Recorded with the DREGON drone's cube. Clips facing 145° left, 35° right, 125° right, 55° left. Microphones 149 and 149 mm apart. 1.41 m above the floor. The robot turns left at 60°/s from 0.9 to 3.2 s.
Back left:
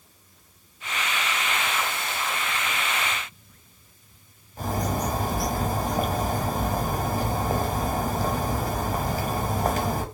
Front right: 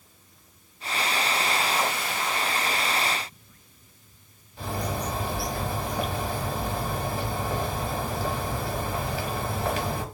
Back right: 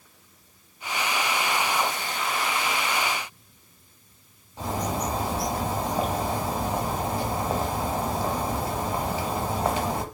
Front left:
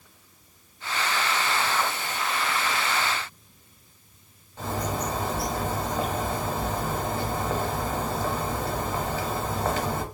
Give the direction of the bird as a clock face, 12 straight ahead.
6 o'clock.